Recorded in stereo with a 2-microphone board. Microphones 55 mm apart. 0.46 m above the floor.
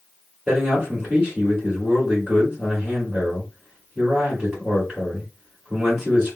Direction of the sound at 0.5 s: 15° right (ahead or behind).